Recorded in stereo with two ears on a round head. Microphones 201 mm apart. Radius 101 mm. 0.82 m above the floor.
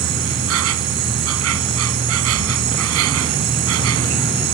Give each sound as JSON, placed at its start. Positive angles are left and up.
{"t": 0.0, "sound": "an insect", "side_deg": -75}